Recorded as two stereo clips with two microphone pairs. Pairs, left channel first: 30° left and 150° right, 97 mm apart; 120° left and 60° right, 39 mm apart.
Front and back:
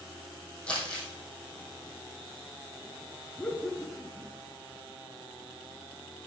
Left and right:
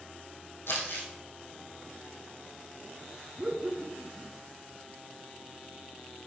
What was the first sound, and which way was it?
Crumpling, 110° left.